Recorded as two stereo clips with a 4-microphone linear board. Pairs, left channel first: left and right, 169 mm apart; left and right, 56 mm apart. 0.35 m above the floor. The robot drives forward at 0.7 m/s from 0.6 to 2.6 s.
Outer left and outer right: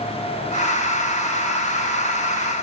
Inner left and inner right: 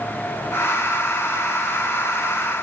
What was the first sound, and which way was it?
Only background noise.